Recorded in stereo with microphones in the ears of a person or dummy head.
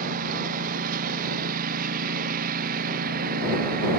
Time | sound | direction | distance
0.0 | a lawn mower | 50° right (ahead or behind) | ?